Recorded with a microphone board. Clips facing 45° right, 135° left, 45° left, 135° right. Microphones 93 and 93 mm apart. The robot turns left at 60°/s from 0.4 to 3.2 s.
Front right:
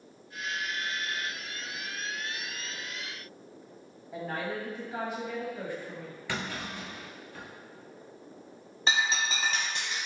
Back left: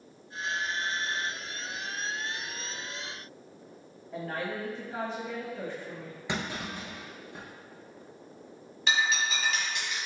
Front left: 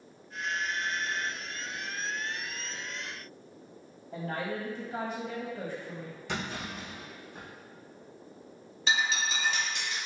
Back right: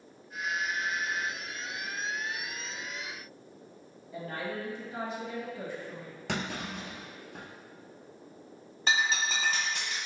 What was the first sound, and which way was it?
A woman speaking, 35° left.